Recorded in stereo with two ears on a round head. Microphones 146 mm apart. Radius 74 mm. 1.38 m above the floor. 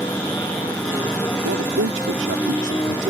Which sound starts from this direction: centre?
A motorcycle, at 0.0 s.